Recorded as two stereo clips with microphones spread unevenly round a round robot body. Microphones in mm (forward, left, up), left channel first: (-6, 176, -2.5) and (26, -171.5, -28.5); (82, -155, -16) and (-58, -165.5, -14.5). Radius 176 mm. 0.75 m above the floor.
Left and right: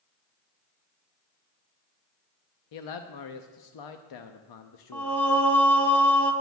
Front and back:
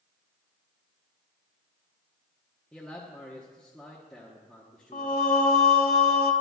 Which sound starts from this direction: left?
A man speaking, at 2.7 s.